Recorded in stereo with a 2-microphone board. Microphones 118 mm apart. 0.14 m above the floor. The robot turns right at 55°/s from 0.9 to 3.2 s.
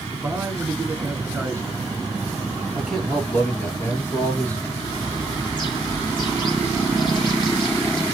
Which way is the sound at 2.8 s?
10° right (ahead or behind).